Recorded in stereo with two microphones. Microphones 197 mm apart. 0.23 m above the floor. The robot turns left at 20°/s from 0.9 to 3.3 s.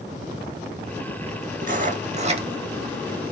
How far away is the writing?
About 0.9 m.